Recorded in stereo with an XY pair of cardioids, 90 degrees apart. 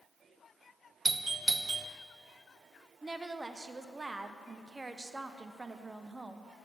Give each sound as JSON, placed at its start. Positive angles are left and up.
{"t": 1.1, "sound": "a doorbell", "azimuth_deg": -25, "distance_m": 0.6}
{"t": 3.0, "sound": "a woman speaking", "azimuth_deg": -25, "distance_m": 0.7}